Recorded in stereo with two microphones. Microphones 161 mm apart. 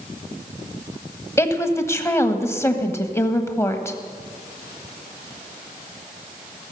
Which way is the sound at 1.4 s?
15° left (ahead or behind).